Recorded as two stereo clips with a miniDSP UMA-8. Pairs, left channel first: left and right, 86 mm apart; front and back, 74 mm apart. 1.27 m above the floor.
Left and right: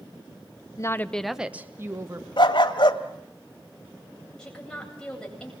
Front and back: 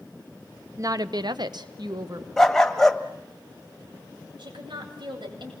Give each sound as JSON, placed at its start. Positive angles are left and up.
{"t": 0.8, "sound": "a woman speaking", "azimuth_deg": 140, "distance_m": 1.0}
{"t": 2.4, "sound": "a dog barking", "azimuth_deg": 80, "distance_m": 1.7}
{"t": 4.4, "sound": "a woman speaking", "azimuth_deg": 170, "distance_m": 8.5}